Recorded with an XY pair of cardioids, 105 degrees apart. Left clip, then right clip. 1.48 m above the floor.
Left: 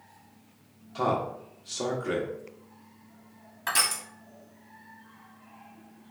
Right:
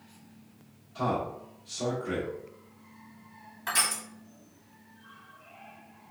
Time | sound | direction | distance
0.9 | a man speaking | 70° left | 1.0 m
3.7 | crushing | 35° left | 1.0 m